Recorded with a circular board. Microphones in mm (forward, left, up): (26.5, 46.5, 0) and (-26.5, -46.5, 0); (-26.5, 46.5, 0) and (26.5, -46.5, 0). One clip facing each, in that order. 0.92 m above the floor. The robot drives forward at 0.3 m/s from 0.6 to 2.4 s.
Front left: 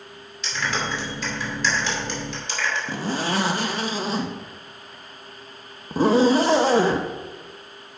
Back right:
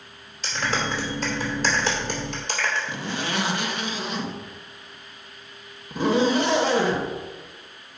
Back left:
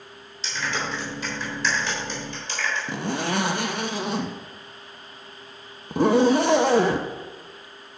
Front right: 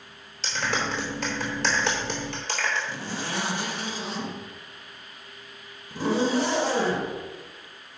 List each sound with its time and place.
0.4 s a clap: 70° right, 2.5 m; by 2.8 s 80° right, 2.5 m
2.9 s a zipper: 110° left, 0.7 m